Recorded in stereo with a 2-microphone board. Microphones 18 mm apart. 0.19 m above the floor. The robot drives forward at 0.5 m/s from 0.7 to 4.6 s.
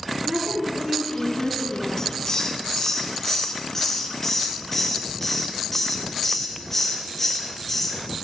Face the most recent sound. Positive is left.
turn(degrees=20)  # may be behind; listen again after turning